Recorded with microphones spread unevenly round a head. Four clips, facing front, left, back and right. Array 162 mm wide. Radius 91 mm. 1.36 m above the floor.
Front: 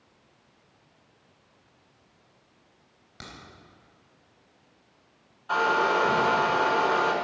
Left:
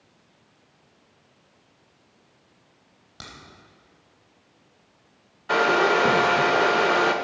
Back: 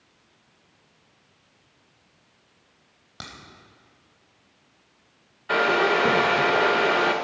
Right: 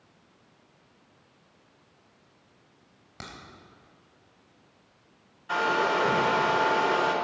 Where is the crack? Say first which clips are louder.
Right 1 dB, back 3 dB; 145° right, 3.5 m.